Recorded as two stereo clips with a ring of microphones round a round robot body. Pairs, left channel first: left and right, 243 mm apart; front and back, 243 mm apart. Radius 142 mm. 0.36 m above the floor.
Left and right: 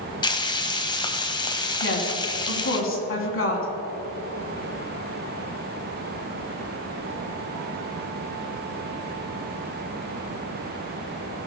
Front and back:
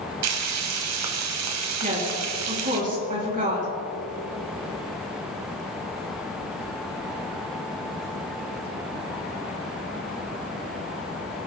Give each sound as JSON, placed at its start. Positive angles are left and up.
{"t": 0.2, "sound": "frying", "azimuth_deg": 160, "distance_m": 1.0}
{"t": 1.8, "sound": "a woman speaking", "azimuth_deg": 120, "distance_m": 3.0}